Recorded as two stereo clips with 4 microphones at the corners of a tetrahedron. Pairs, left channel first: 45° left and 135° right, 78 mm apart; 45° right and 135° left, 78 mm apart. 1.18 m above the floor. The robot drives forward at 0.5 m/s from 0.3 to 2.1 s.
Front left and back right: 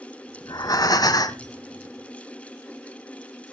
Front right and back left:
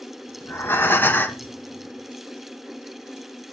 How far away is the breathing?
About 1.5 m.